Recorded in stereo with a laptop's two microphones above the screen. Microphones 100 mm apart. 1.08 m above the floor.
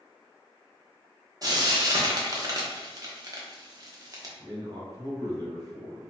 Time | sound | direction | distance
1.4 | frying | 35° right (ahead or behind) | 0.7 m
4.4 | a man speaking | 35° right (ahead or behind) | 1.1 m